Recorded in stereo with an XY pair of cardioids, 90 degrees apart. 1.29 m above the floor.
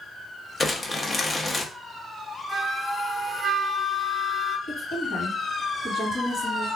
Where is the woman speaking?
65° left, 2.5 m.